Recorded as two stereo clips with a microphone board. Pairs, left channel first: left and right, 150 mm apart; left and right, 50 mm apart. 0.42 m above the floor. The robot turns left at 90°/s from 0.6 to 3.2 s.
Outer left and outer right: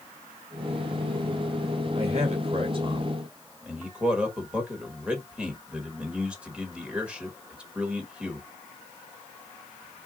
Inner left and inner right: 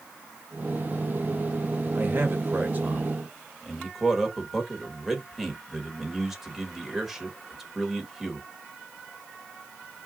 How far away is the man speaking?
About 1.7 m.